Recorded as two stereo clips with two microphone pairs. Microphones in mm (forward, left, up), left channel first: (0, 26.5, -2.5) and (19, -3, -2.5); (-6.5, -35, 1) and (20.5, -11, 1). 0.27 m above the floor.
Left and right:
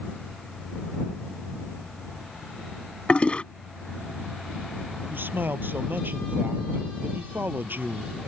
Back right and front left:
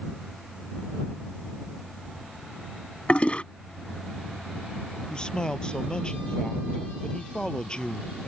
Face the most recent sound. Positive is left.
turn(degrees=-75)